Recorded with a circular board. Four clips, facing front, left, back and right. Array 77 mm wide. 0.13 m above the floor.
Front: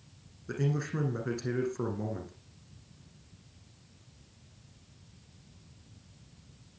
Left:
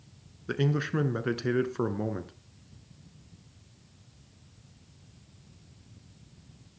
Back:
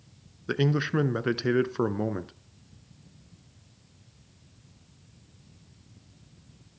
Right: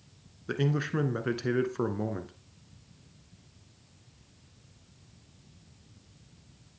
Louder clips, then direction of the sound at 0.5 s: Left 1 dB, back 7 dB; 175° left.